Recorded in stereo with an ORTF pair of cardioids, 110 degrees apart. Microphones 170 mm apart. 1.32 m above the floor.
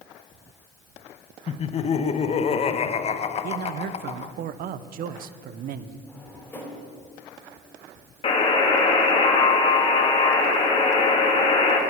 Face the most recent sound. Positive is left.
turn(degrees=30)